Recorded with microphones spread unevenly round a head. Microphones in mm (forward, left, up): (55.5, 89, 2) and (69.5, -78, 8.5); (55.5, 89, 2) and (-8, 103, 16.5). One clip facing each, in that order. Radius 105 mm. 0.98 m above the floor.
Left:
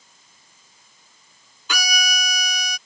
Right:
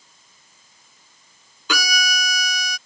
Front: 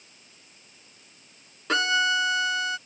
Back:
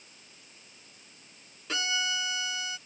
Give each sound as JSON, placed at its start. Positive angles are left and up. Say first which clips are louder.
{"t": 1.7, "sound": "a violin", "louder": "right 3 dB, front 9 dB", "azimuth_deg": -90}